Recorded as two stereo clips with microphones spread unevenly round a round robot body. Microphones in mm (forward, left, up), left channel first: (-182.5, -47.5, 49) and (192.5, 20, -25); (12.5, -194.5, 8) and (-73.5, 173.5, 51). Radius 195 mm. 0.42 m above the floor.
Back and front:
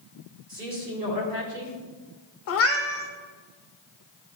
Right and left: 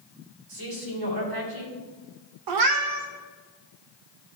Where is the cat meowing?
130° left, 0.8 m.